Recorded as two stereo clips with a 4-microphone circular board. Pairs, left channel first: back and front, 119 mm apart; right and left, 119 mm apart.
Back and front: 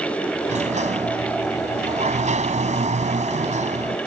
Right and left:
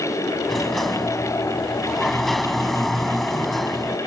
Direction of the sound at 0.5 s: Straight ahead.